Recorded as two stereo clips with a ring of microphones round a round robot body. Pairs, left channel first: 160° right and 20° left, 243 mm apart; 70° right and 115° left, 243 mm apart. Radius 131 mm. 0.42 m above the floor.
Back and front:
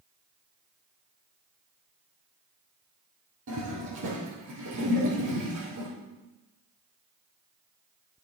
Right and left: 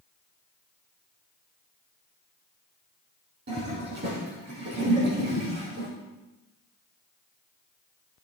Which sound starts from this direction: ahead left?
A toilet flushing, at 3.5 s.